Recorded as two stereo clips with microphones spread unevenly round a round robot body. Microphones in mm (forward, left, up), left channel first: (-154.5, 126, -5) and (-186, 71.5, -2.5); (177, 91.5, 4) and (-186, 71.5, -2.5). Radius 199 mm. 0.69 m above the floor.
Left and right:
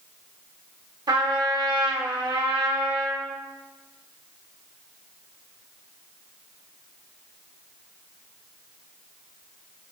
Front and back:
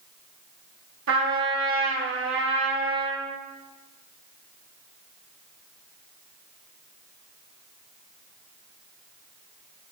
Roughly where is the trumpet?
Behind right.